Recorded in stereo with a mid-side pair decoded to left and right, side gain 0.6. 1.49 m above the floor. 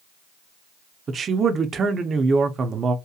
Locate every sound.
1.1 s a man speaking: 35° right, 0.6 m